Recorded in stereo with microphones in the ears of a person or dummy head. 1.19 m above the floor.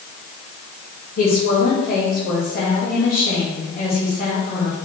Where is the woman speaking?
50° left (ahead or behind), 2 m.